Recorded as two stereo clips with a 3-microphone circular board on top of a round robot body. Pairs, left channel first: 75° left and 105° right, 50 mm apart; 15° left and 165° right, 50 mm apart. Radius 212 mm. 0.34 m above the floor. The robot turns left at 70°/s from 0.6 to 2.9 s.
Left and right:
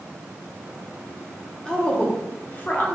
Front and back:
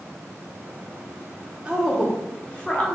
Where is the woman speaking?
135° left, 1.4 m; by 3.0 s 50° left, 1.4 m.